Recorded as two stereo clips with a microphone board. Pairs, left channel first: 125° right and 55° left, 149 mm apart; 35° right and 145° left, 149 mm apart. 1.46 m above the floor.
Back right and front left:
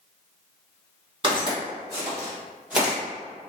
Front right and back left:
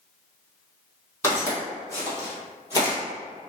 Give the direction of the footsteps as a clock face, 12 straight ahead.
11 o'clock.